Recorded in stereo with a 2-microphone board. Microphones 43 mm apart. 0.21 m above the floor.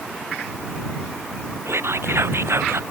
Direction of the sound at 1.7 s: 70° right (ahead or behind).